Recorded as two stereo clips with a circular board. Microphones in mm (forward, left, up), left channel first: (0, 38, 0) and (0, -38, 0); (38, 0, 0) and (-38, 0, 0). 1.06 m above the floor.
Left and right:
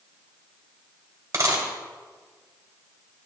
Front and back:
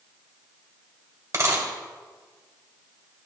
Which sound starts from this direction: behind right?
A dropped coin, at 1.3 s.